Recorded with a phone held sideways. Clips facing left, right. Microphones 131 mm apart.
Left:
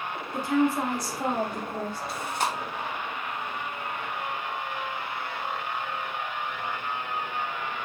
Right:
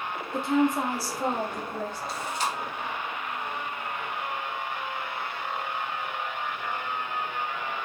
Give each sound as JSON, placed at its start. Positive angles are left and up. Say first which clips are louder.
{"t": 0.3, "sound": "a woman speaking", "louder": "even", "side_deg": -30, "distance_m": 0.7}
{"t": 2.1, "sound": "chewing", "louder": "left 2 dB", "side_deg": 60, "distance_m": 0.6}